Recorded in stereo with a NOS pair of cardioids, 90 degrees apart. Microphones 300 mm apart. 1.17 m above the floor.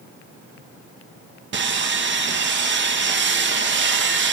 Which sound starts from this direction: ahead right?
Sawing, at 1.5 s.